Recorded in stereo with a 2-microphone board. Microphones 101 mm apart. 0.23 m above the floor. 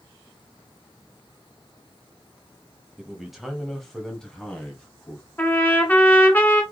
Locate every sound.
3.0 s a man speaking: 5° right (ahead or behind), 1.1 m; by 5.2 s 10° left (ahead or behind), 1.6 m
5.4 s a trumpet: 20° left (ahead or behind), 1.2 m